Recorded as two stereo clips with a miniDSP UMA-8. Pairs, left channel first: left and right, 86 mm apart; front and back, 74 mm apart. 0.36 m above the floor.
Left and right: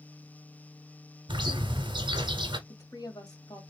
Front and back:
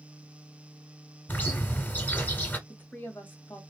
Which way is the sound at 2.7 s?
60° left.